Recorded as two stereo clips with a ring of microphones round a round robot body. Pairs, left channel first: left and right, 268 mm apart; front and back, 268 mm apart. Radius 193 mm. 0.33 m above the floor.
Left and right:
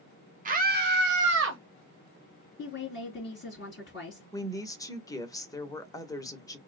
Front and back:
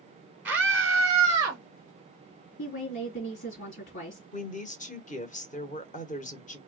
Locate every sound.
0.5 s a scream: 100° right, 1.5 m; by 1.6 s 105° right, 2 m
2.6 s a woman speaking: 45° left, 3.5 m
4.3 s a woman speaking: 25° left, 1.0 m